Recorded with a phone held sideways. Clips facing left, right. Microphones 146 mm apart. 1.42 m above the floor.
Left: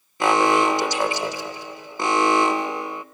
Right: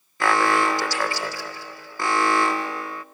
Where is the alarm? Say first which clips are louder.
Left 3 dB; 20° left (ahead or behind), 0.9 m.